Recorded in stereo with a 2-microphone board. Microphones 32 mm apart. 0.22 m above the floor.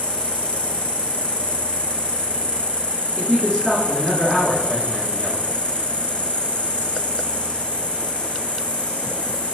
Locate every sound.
0.0 s an insect: 40° left (ahead or behind), 0.8 m
3.2 s a man speaking: 15° right (ahead or behind), 2.0 m